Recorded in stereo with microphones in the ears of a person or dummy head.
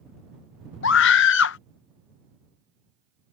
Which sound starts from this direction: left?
A scream, at 0.8 s.